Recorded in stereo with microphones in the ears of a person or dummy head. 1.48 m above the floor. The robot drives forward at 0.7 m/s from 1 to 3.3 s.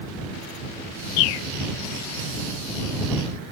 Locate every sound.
1.2 s a bird: 75° left (ahead or behind); by 1.5 s 65° left (ahead or behind)